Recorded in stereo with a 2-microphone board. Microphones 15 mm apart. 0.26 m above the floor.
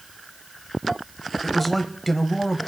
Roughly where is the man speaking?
Centre.